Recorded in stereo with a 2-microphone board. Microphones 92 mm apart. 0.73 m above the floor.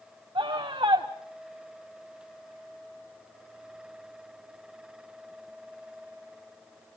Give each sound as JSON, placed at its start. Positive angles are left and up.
{"t": 0.3, "sound": "a scream", "side_deg": -60, "distance_m": 1.5}